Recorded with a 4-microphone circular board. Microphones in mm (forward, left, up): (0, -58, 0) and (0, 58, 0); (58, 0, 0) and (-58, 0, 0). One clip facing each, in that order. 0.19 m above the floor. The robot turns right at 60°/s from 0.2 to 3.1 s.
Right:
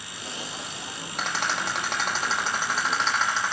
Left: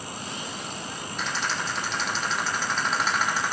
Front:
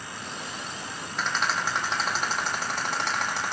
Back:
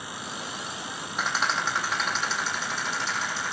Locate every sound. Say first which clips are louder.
1.2 s a rattle: right 2 dB, even; 105° right, 7 m; by 3.5 s 10° left, 7 m